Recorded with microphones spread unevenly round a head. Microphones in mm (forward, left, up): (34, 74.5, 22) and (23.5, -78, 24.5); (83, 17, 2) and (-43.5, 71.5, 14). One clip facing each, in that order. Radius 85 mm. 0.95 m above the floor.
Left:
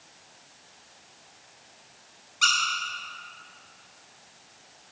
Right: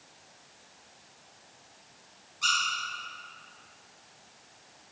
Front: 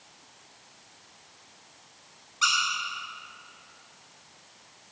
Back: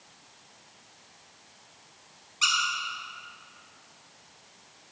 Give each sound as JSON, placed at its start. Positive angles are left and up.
{"t": 2.4, "sound": "a squeak", "azimuth_deg": 90, "distance_m": 3.5}